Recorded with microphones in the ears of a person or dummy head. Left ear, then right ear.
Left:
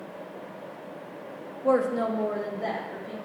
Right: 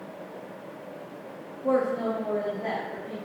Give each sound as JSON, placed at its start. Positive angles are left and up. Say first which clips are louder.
{"t": 1.6, "sound": "a woman speaking", "louder": "left 1 dB", "side_deg": 15, "distance_m": 0.6}